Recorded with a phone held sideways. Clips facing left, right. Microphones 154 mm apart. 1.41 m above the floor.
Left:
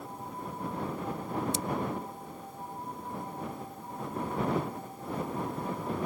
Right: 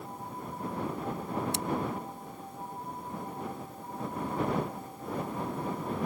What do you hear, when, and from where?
1.5 s scissors: 70° right (ahead or behind)